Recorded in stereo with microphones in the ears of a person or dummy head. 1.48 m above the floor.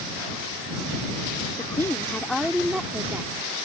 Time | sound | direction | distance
1.6 | a woman speaking | 15° left (ahead or behind) | ?